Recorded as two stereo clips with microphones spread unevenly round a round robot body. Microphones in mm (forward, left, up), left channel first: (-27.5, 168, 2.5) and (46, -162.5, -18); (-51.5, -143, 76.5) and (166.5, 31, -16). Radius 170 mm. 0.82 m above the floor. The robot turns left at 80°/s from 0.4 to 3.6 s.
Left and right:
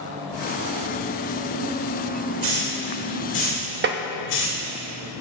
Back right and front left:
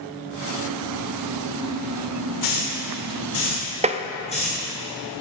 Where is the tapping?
20° right, 0.6 m.